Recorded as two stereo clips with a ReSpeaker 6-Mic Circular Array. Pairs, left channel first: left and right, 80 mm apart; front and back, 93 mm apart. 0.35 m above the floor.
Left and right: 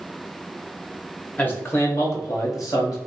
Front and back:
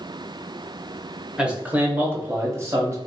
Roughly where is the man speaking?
Behind left.